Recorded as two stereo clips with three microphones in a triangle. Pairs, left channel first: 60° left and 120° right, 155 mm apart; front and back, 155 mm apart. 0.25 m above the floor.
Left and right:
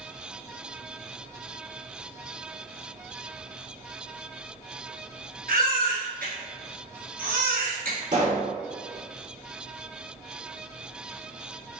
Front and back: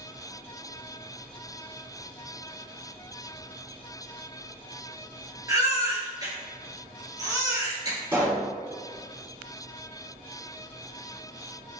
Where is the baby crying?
115° right, 1.3 m.